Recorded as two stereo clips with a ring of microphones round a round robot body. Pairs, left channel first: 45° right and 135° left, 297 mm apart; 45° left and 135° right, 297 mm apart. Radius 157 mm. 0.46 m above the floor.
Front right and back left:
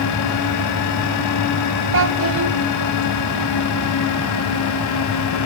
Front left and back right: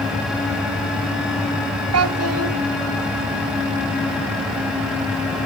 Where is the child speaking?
175° right, 1.7 m.